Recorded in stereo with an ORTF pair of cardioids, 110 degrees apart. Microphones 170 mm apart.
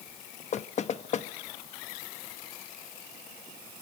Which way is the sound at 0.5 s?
45° left.